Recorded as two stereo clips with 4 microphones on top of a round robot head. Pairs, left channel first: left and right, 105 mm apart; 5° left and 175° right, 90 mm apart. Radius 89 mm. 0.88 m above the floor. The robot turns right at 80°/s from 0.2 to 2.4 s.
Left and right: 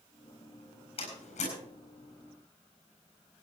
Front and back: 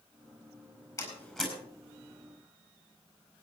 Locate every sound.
1.0 s a door slam: 55° left, 7.5 m; by 1.5 s 100° left, 7.5 m